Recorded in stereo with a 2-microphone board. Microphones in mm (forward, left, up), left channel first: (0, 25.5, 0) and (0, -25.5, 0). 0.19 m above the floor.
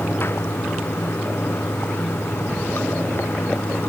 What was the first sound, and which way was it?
Running water, 50° left (ahead or behind).